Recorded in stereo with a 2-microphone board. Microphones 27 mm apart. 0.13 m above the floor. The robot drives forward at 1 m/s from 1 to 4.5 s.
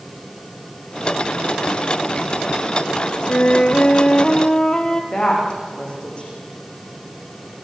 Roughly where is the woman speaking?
Left.